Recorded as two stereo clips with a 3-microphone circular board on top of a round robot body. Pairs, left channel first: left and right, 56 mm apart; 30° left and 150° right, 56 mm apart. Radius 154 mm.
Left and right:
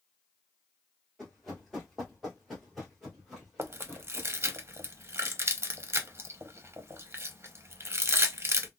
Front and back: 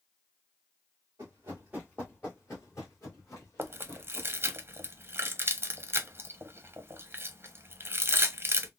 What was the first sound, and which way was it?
Running footsteps, straight behind.